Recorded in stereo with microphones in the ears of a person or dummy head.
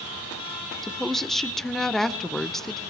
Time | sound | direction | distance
0.8 | a woman speaking | 5° left (ahead or behind) | 0.5 m